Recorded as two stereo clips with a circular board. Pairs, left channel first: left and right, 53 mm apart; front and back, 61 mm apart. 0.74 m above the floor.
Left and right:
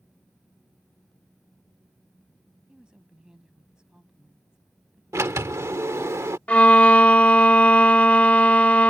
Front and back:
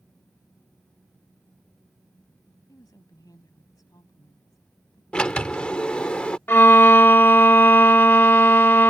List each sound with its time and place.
2.7 s a woman speaking: 15° right
5.1 s a sliding door: 75° right
6.5 s a violin: 40° left